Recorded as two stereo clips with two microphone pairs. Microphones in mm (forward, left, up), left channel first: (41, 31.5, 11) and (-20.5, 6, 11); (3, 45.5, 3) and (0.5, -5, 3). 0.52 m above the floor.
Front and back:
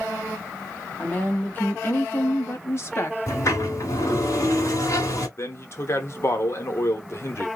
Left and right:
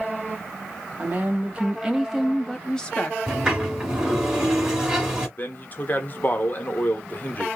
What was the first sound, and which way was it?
A woman speaking, 40° right.